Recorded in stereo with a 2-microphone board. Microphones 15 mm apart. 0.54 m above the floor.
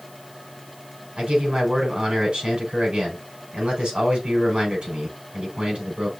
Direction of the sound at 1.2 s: 75° right (ahead or behind).